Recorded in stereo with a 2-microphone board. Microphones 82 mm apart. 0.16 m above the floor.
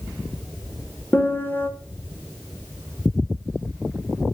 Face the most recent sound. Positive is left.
turn(degrees=25)  # may be behind; listen again after turning